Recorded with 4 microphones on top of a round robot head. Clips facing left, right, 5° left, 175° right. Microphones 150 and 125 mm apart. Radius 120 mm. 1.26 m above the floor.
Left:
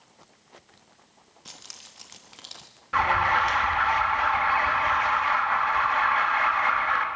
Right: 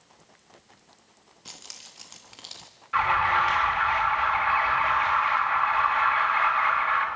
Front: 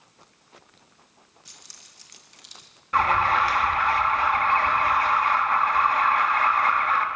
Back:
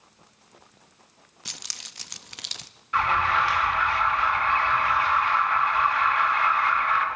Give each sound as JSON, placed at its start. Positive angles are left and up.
{"t": 1.4, "sound": "keys jangling", "azimuth_deg": 180, "distance_m": 0.9}
{"t": 2.9, "sound": "an alarm", "azimuth_deg": 45, "distance_m": 4.0}